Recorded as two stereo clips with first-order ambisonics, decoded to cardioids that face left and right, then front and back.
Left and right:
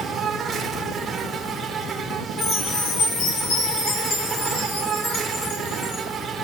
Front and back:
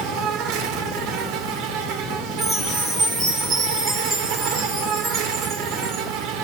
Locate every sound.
0.0 s an insect: 165° right, 1.7 m
2.4 s a chime: 110° left, 4.5 m